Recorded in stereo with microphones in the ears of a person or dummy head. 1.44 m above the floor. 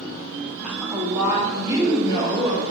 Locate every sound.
0.6 s a woman speaking: 5° right (ahead or behind), 1.1 m; by 2.6 s 30° right (ahead or behind), 3.5 m